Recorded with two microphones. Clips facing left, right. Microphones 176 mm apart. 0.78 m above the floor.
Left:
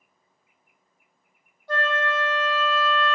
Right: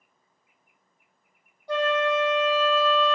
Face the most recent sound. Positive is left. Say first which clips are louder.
# right 3 dB
turn(degrees=-15)  # may be behind; listen again after turning